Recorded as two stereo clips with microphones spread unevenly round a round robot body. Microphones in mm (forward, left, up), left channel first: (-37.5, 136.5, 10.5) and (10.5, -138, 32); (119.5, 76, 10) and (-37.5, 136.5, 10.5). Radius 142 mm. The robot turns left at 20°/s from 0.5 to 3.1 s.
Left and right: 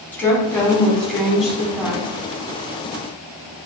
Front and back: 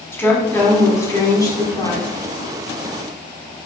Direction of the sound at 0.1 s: 35° left.